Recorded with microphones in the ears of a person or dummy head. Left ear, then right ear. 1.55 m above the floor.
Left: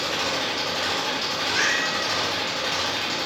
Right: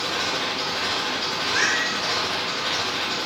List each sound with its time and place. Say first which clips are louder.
0.0 s an engine running: even; 25° right (ahead or behind), 5.5 m
1.4 s a cat meowing: right 1 dB; 60° right (ahead or behind), 5 m